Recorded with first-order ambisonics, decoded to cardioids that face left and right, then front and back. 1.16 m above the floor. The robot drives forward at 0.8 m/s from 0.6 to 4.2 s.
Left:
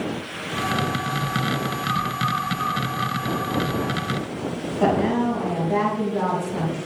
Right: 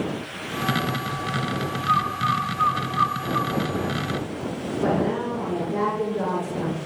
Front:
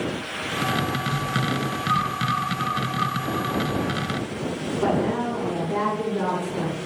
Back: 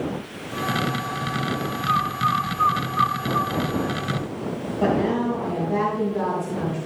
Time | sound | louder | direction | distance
1.9 | a bird | right 4 dB, back 3 dB | 140° right | 2.5 m
4.8 | a woman speaking | left 3 dB, back 2 dB | 115° left | 5.5 m